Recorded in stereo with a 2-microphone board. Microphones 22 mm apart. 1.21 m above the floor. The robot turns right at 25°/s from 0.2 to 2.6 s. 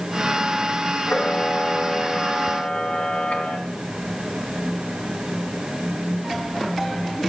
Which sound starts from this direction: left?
A camera shutter, at 1.1 s.